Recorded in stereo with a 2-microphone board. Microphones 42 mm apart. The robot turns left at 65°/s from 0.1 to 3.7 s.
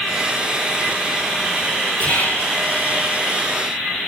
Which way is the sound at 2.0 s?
145° left.